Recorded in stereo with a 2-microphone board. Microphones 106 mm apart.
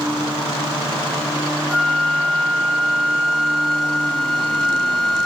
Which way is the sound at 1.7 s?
Centre (ahead or behind).